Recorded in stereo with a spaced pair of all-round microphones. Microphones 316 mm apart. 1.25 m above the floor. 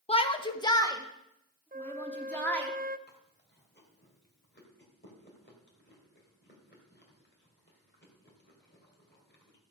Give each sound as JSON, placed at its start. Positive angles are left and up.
{"t": 0.1, "sound": "a shout", "side_deg": 20, "distance_m": 1.1}
{"t": 1.7, "sound": "a flute", "side_deg": -30, "distance_m": 0.5}
{"t": 3.1, "sound": "chewing", "side_deg": 35, "distance_m": 2.5}